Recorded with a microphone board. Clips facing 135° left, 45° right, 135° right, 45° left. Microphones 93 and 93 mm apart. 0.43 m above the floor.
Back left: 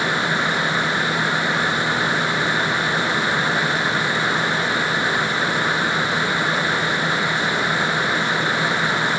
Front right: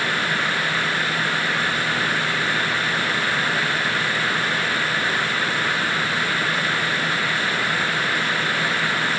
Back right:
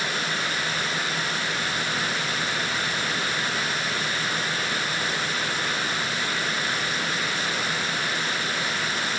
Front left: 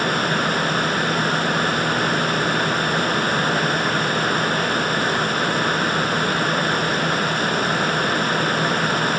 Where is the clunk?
No clunk in this recording.